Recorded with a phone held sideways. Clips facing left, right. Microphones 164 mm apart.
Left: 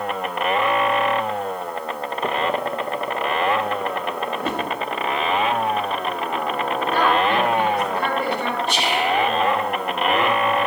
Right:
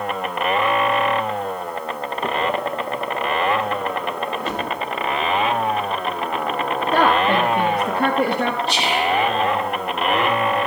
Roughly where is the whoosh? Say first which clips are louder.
Even; left.